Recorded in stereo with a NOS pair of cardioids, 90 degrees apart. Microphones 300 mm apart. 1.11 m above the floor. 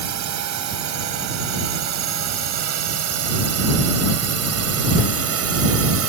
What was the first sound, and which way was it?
A drone, 70° right.